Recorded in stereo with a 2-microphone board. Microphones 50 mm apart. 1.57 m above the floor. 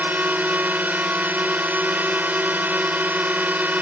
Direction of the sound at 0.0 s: 35° right (ahead or behind).